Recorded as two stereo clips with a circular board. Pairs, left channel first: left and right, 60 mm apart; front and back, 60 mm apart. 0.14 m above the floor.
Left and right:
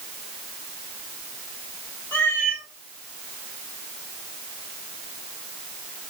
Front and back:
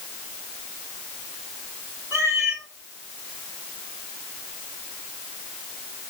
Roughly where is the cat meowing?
Behind left.